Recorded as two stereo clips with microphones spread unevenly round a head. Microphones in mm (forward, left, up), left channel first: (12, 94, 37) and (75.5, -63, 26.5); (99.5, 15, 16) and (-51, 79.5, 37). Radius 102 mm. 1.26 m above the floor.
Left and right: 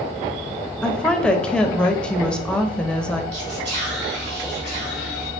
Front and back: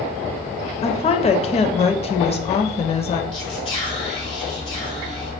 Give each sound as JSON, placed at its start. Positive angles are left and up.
{"t": 0.8, "sound": "a woman speaking", "azimuth_deg": 25, "distance_m": 0.5}
{"t": 3.3, "sound": "whispering", "azimuth_deg": -85, "distance_m": 1.5}